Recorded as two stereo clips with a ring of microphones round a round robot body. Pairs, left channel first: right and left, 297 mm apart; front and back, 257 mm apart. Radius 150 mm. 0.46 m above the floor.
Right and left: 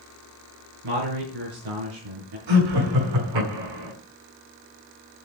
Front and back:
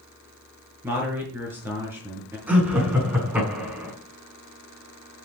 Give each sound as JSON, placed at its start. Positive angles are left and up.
{"t": 0.8, "sound": "a man speaking", "azimuth_deg": 100, "distance_m": 6.5}
{"t": 2.5, "sound": "laughter", "azimuth_deg": 95, "distance_m": 6.0}